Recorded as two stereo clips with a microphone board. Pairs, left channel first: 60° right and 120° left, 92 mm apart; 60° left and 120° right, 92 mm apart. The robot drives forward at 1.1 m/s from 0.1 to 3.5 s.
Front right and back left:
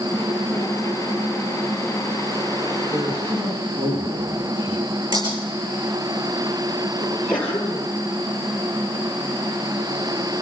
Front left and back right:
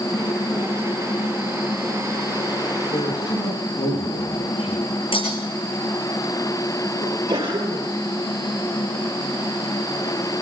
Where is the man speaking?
85° left, 7.5 m; by 5.0 s 90° left, 7.5 m.